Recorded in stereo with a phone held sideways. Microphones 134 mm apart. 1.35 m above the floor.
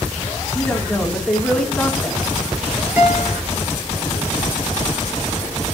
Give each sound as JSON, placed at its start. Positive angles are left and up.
{"t": 0.6, "sound": "a man speaking", "side_deg": 5, "distance_m": 2.5}
{"t": 3.0, "sound": "a guitar", "side_deg": -15, "distance_m": 4.0}